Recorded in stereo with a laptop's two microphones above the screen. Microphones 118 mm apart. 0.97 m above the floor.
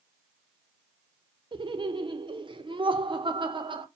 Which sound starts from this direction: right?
Laughter, at 1.5 s.